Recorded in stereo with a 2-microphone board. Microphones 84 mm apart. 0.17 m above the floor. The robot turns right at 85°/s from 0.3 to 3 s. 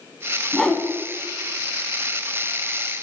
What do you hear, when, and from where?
0.5 s a whoosh: 5° left (ahead or behind), 1.2 m; by 0.8 s 10° left (ahead or behind), 1.2 m